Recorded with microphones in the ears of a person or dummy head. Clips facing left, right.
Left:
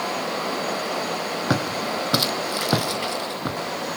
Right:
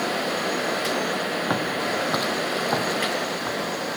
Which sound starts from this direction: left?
Footsteps, at 1.5 s.